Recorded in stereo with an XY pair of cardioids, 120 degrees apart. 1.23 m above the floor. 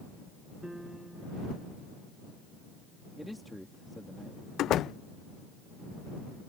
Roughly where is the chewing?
I don't hear chewing.